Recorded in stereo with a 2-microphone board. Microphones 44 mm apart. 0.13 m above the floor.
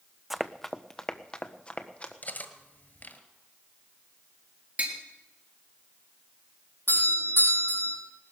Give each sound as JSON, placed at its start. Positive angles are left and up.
{"t": 0.3, "sound": "running footsteps", "side_deg": -5, "distance_m": 0.6}
{"t": 2.2, "sound": "cutlery clinking", "side_deg": 45, "distance_m": 1.5}
{"t": 4.8, "sound": "tapping", "side_deg": -35, "distance_m": 2.5}
{"t": 6.9, "sound": "a doorbell", "side_deg": 60, "distance_m": 7.0}